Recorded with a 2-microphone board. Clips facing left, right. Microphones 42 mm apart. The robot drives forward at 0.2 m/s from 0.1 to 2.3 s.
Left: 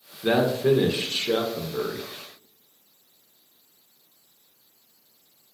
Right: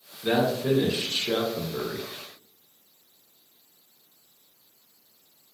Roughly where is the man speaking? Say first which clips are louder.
Left 3 dB; left.